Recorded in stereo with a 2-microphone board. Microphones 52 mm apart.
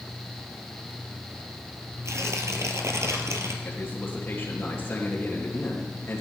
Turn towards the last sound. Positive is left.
turn(degrees=40)  # may be behind; listen again after turning